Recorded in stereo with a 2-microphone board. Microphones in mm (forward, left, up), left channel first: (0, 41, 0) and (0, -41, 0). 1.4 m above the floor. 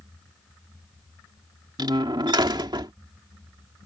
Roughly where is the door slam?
Right.